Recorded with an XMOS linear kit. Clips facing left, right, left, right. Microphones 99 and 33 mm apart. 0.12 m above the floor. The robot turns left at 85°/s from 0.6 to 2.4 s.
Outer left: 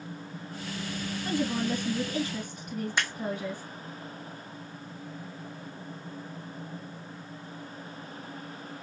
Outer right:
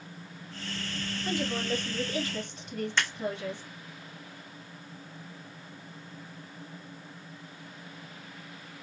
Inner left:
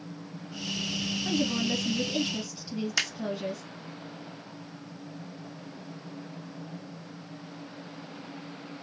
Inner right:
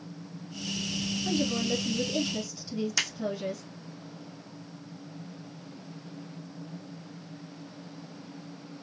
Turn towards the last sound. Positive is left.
turn(degrees=15)  # may be behind; listen again after turning